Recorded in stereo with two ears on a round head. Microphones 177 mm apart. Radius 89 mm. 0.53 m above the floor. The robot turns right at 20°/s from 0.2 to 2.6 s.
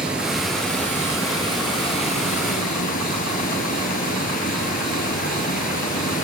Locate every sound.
0.0 s running water: 5° right, 1.9 m; by 6.2 s 45° left, 1.9 m